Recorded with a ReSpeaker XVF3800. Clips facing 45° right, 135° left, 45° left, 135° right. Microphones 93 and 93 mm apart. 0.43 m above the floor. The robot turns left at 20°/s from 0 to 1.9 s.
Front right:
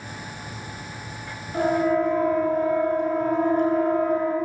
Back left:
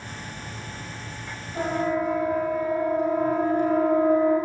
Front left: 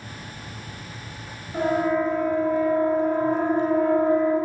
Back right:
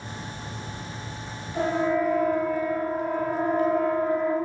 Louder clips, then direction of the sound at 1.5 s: Front right 4 dB, front left 2 dB; 5° right.